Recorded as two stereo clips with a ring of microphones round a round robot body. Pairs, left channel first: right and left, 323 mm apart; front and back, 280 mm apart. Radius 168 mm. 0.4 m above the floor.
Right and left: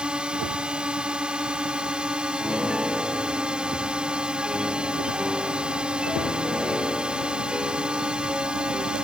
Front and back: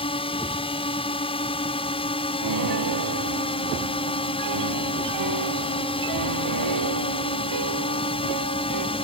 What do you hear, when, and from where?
0.0 s a drone: 10° left
2.4 s a piano: 175° left